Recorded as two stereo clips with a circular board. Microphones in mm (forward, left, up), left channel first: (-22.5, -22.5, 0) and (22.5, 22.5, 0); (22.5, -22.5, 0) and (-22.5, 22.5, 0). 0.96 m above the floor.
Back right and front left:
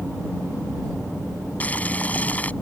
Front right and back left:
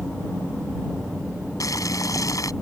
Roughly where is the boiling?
Right.